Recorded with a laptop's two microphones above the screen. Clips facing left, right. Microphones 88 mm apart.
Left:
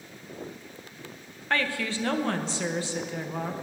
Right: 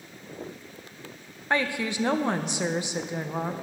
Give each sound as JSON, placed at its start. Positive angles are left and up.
{"t": 1.5, "sound": "a woman speaking", "side_deg": -20, "distance_m": 0.7}